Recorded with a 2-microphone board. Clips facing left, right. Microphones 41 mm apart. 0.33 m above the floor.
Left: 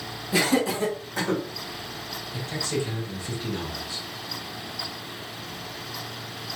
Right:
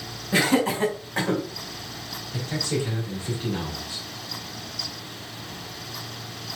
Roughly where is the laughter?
Right.